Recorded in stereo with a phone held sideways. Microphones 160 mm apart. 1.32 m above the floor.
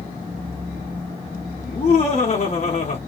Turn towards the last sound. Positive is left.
turn(degrees=45)  # may be behind; listen again after turning